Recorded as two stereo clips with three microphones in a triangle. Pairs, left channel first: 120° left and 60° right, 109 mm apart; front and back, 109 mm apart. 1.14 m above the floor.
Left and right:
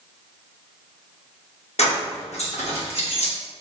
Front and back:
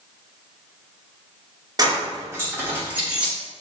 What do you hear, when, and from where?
1.8 s keys jangling: 125° left, 1.2 m; by 3.3 s 100° left, 1.6 m